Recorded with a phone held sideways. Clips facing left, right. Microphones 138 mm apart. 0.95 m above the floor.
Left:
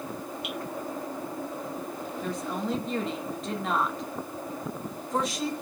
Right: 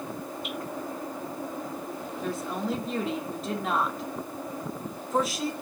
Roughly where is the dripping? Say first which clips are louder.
Even; left.